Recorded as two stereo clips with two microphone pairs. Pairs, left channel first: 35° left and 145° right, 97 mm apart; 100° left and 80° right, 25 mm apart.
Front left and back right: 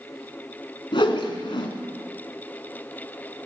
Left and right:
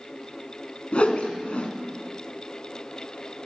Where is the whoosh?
65° left, 1.0 m.